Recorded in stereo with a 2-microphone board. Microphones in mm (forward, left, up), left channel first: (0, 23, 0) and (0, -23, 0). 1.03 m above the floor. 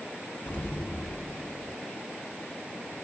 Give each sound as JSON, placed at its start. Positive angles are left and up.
{"t": 0.5, "sound": "an explosion", "side_deg": 50, "distance_m": 1.4}